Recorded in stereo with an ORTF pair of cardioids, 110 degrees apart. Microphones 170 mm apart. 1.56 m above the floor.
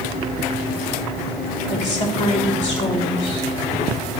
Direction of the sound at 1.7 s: 40° left.